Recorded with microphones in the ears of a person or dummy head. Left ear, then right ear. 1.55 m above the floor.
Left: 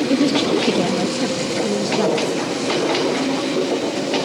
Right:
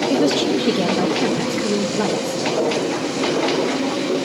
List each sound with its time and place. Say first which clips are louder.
0.1 s a woman speaking: left 1 dB; 5° right (ahead or behind), 2 m